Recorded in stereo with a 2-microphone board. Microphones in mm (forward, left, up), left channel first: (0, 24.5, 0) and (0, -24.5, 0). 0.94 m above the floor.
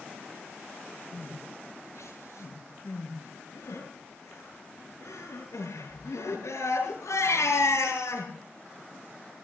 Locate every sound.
1.1 s crying: 85° left, 8.5 m